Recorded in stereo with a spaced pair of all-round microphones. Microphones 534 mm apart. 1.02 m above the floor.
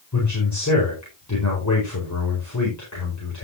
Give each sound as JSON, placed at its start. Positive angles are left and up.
{"t": 0.1, "sound": "a man speaking", "side_deg": 30, "distance_m": 4.5}